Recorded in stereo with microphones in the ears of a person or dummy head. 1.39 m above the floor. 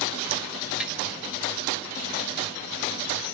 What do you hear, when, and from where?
0.8 s tapping: 5° right (ahead or behind), 1.7 m